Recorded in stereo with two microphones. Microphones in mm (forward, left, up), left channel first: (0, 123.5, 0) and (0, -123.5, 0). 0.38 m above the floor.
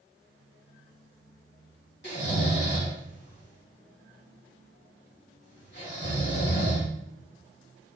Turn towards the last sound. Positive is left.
turn(degrees=45)  # may be behind; listen again after turning